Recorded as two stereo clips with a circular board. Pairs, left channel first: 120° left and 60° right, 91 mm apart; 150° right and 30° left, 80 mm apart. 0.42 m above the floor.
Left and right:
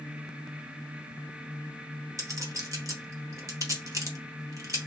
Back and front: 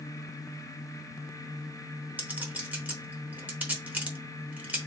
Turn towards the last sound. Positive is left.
turn(degrees=-30)